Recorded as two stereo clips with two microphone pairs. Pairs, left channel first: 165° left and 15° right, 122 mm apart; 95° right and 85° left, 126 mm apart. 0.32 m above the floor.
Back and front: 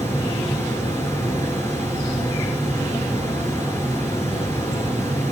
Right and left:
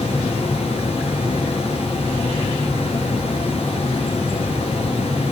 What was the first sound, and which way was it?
Running water, 125° right.